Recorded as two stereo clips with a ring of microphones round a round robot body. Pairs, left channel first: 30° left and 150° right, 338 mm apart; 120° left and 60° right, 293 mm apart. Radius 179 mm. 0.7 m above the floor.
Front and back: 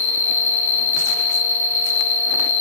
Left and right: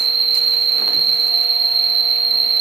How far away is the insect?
About 0.7 m.